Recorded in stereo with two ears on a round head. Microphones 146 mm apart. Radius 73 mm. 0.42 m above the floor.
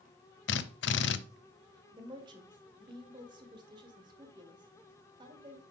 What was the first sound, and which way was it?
A drill, 80° left.